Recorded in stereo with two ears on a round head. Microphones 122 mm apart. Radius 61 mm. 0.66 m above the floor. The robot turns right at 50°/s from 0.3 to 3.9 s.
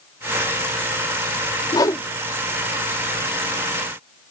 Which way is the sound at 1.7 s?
30° left (ahead or behind).